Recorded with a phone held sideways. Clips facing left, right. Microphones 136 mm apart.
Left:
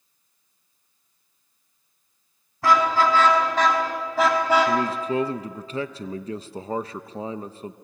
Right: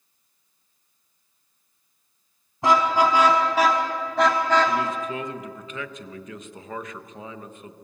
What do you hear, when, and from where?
2.6 s a car horn: 20° right (ahead or behind), 4.5 m; by 4.8 s 15° left (ahead or behind), 3.5 m
4.7 s a man speaking: 35° left (ahead or behind), 0.9 m